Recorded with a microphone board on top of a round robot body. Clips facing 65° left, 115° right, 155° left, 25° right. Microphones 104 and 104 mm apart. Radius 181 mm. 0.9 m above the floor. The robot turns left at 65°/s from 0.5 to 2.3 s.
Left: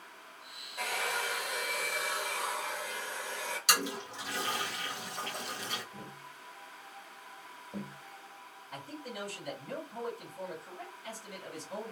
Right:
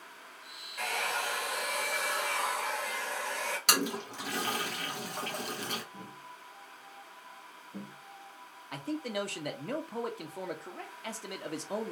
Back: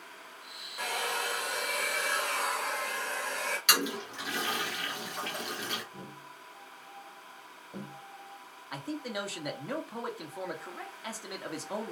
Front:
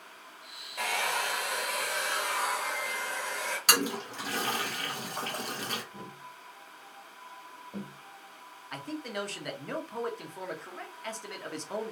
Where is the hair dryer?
5° right, 1.5 m; by 3.6 s 105° right, 1.5 m.